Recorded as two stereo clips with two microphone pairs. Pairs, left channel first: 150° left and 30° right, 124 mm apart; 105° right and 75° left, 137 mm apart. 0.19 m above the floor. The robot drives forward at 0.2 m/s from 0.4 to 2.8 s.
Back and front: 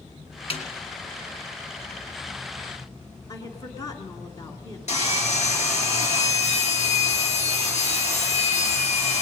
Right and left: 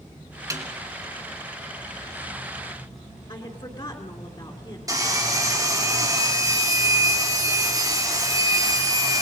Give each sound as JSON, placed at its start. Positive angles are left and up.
{"t": 0.5, "sound": "a snare drum", "azimuth_deg": 130, "distance_m": 2.5}
{"t": 3.3, "sound": "a woman speaking", "azimuth_deg": -155, "distance_m": 2.5}
{"t": 4.9, "sound": "sawing", "azimuth_deg": 135, "distance_m": 4.5}